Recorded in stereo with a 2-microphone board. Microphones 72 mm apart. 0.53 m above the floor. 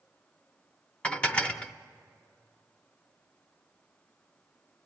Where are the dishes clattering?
15° left (ahead or behind), 0.6 m.